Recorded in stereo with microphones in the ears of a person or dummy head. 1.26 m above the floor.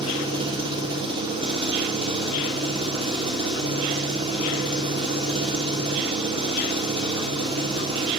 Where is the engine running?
30° right (ahead or behind), 3 m.